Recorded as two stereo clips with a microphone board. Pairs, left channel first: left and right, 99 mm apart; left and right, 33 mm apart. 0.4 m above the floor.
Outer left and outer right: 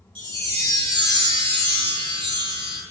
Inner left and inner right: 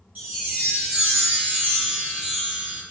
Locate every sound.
0.1 s a chime: 50° right (ahead or behind), 1.6 m